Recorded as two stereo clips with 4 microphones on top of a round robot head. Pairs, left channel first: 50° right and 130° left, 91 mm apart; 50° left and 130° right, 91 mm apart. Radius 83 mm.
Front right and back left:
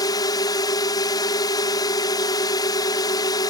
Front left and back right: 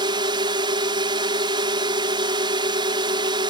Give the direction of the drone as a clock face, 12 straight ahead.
3 o'clock.